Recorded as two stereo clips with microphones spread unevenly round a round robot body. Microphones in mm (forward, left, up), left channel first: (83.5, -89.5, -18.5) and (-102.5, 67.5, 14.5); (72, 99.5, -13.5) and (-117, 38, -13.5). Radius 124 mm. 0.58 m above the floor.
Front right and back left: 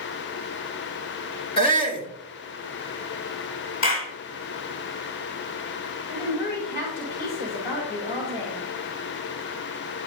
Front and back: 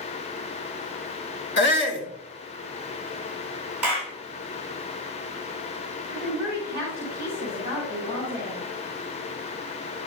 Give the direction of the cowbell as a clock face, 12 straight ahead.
I don't hear a cowbell.